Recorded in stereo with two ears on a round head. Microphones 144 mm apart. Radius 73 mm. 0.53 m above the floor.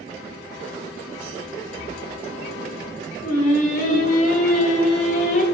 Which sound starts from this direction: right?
Breathing, at 1.8 s.